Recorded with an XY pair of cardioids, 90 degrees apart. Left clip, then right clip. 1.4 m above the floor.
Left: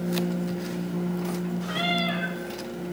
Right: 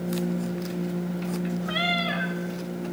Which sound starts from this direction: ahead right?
A cat meowing, at 1.7 s.